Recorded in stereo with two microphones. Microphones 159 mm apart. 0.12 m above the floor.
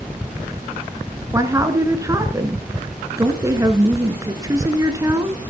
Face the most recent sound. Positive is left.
turn(degrees=-20)  # may be behind; listen again after turning